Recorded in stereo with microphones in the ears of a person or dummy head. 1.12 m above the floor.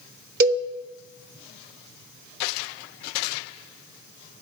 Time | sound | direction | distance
0.4 | a cowbell | 55° right (ahead or behind) | 1.0 m